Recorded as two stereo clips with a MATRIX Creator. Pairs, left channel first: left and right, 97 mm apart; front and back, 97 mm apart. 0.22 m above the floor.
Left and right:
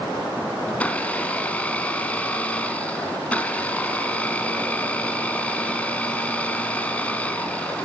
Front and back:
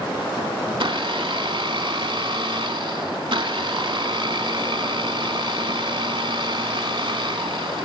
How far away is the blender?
About 0.7 m.